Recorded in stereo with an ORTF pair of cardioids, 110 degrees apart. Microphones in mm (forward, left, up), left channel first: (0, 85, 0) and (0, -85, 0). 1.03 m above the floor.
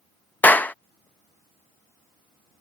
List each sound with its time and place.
0.4 s a clap: 10° left